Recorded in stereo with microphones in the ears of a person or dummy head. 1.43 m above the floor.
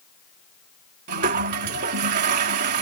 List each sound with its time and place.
1.1 s a toilet flushing: 50° right (ahead or behind)